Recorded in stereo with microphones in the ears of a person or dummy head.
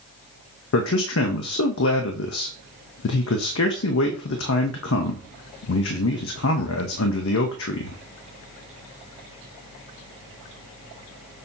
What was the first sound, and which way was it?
A man speaking, 70° left (ahead or behind).